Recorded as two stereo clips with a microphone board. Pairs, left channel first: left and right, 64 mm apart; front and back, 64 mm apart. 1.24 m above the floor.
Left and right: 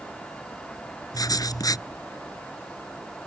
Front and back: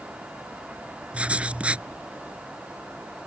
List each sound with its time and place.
1.1 s writing: 110° left